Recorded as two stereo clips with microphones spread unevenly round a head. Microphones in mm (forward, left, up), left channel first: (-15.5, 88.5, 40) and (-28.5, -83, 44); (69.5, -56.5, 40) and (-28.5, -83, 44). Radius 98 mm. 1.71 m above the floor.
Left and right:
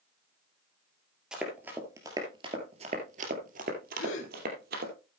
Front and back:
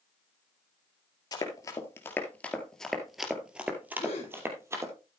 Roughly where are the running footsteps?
Ahead.